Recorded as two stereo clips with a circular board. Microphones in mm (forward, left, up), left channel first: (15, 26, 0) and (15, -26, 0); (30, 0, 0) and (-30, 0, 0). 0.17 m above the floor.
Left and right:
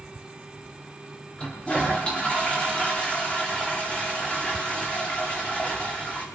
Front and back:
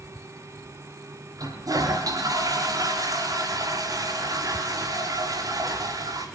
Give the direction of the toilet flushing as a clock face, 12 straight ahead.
7 o'clock.